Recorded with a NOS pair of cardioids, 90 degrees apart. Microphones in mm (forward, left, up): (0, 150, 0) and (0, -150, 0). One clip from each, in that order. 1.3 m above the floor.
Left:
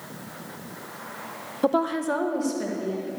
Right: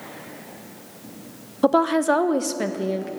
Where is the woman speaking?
15° right, 0.5 m; by 3.1 s 65° right, 1.6 m.